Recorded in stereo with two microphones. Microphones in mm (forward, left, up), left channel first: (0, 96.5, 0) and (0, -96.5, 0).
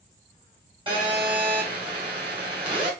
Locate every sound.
0.9 s a phone buzzing: 25° right (ahead or behind), 1.9 m